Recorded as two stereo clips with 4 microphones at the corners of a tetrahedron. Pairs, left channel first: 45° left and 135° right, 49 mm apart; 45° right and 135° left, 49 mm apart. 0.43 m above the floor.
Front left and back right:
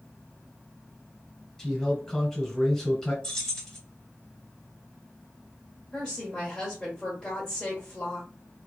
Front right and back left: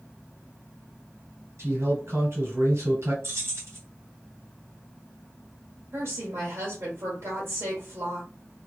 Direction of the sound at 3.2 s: 120° left.